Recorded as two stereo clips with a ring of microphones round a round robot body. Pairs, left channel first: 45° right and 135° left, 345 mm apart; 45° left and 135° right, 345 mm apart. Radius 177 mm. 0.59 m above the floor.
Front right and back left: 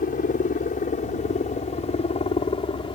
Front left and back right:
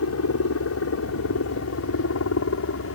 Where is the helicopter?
15° left; by 3.0 s 25° left.